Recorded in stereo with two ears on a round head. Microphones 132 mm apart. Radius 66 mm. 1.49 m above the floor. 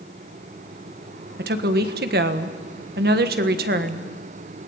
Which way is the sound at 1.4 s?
70° right (ahead or behind).